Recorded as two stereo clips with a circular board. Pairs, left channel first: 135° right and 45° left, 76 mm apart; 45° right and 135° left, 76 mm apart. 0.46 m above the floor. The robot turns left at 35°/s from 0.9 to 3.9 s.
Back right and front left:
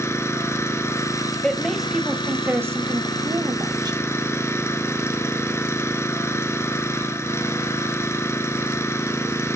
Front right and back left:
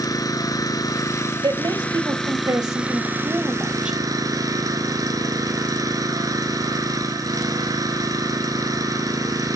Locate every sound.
0.0 s an engine running: 85° right, 1.5 m; by 9.6 s 170° left, 1.5 m
1.4 s a woman speaking: 145° left, 1.9 m; by 4.0 s 60° left, 1.9 m